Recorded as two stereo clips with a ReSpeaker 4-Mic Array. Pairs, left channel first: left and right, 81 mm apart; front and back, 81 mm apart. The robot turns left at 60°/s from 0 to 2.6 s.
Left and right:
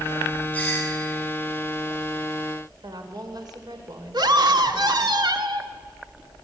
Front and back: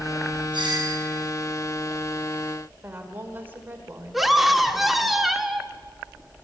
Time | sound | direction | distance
0.5 | a doorbell | 160° left | 7 m
2.8 | a woman speaking | 115° right | 3 m
4.1 | a scream | 95° right | 2 m